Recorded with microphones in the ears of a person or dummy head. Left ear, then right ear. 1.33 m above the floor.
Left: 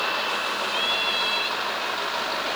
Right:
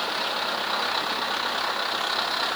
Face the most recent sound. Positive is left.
No sound to turn to.